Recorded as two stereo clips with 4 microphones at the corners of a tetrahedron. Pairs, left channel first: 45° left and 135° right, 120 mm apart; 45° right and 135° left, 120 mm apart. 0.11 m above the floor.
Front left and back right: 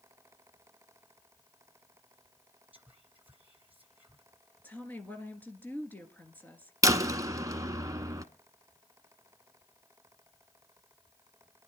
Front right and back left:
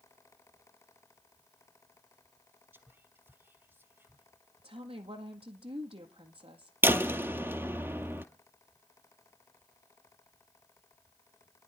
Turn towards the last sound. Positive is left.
turn(degrees=-170)